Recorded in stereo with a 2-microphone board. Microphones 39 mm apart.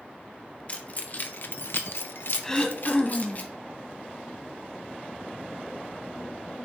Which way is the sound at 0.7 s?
35° left (ahead or behind).